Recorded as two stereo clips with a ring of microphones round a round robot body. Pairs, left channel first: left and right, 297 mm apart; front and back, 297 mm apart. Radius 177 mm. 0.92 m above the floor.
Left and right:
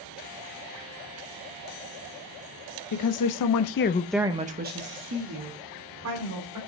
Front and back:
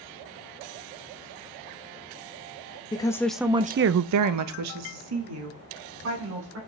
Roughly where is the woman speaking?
Left.